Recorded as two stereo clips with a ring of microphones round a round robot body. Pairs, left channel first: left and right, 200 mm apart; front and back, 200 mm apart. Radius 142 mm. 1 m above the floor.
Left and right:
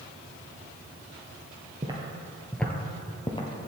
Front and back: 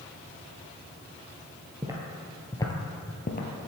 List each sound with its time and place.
1.8 s footsteps: 130° right, 1.0 m; by 3.5 s 30° left, 1.4 m